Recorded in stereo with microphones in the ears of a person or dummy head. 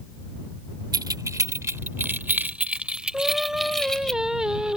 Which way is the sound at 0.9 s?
20° right (ahead or behind).